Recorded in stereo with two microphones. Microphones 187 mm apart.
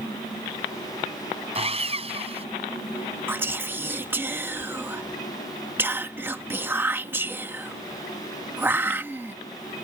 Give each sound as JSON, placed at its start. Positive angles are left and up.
{"t": 1.6, "sound": "sawing", "side_deg": -30}
{"t": 3.3, "sound": "whispering", "side_deg": -10}